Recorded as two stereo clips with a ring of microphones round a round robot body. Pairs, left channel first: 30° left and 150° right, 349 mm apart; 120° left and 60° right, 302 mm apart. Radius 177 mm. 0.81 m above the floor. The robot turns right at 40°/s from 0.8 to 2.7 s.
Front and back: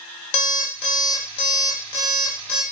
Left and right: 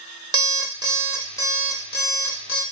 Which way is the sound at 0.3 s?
15° left.